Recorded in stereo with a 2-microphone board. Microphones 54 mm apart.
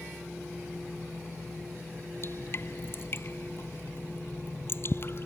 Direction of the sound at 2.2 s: 45° left (ahead or behind).